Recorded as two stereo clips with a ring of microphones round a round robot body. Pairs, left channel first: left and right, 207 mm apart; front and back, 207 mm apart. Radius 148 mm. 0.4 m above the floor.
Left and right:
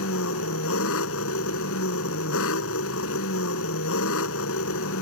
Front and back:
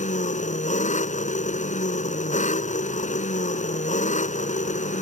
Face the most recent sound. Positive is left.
turn(degrees=55)